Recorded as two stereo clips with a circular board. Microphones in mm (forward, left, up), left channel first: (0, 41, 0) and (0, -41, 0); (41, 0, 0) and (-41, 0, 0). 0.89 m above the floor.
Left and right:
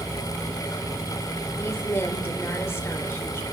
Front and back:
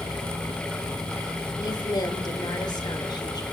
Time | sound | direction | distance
1.6 | a woman speaking | 30° left | 3 m